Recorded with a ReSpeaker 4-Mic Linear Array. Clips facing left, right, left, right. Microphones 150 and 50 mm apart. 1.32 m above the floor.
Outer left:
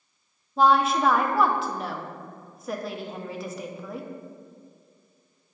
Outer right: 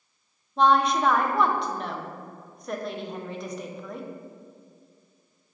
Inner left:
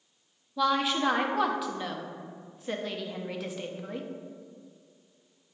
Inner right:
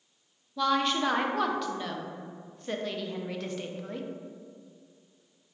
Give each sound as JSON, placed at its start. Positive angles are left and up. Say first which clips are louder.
{"t": 0.6, "sound": "a woman speaking", "louder": "outer left 1 dB, even", "side_deg": 5, "distance_m": 0.7}